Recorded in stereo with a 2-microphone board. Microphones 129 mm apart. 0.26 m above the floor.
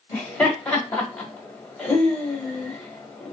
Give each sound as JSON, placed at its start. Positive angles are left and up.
{"t": 0.1, "sound": "laughter", "side_deg": 10, "distance_m": 1.3}